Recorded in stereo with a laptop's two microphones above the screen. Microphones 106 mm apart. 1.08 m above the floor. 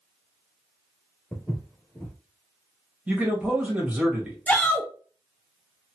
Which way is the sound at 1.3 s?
15° left (ahead or behind).